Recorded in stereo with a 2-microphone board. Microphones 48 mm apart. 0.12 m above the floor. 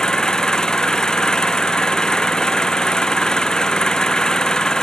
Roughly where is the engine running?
Centre.